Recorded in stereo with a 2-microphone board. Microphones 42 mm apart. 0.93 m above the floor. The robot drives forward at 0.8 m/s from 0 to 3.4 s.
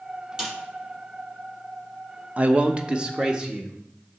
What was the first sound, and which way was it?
A snare drum, 20° right (ahead or behind).